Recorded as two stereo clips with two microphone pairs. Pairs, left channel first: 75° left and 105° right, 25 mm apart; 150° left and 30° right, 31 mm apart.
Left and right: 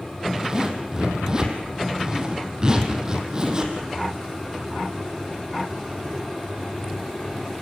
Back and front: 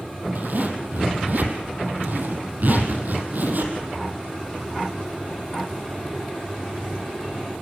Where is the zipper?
45° right, 3.5 m.